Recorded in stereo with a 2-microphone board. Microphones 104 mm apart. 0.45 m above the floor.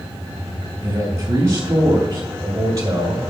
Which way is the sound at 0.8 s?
25° right (ahead or behind).